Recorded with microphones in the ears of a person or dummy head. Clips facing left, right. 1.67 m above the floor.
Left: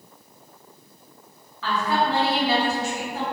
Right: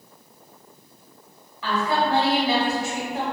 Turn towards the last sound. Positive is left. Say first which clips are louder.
# even
turn(degrees=-15)  # may be behind; listen again after turning